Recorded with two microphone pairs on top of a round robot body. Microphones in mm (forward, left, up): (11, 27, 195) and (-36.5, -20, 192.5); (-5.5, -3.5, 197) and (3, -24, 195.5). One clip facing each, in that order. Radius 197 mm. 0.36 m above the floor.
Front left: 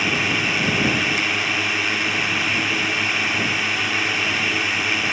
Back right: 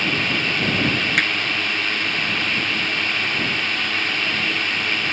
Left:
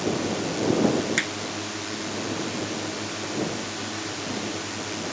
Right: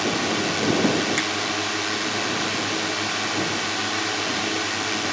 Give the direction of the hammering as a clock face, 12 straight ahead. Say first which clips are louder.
Back right 3 dB, right 2 dB; 6 o'clock.